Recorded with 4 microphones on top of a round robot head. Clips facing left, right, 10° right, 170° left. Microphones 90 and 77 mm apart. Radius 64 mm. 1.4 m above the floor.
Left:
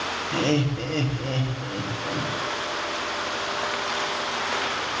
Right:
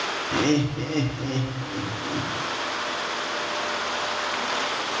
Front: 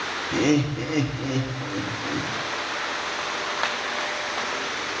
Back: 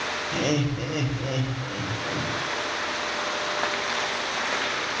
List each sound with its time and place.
0.3 s laughter: 30° right, 5.5 m